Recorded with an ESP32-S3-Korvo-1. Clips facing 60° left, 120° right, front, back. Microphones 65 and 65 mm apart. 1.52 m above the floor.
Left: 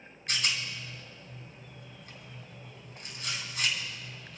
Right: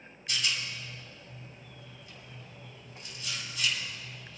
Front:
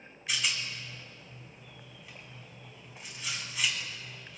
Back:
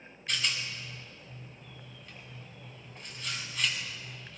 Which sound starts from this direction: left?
A rattle, at 0.3 s.